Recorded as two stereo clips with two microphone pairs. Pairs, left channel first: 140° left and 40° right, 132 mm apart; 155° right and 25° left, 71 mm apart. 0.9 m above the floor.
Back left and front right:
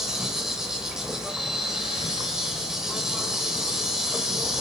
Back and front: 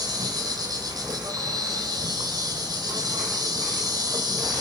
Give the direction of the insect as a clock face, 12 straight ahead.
10 o'clock.